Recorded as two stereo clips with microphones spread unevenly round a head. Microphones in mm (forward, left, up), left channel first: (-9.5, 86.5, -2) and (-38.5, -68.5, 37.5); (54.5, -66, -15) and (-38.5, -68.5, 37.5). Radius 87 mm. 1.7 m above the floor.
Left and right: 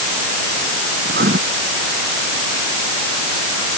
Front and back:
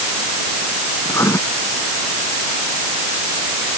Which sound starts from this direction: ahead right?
Writing, at 1.1 s.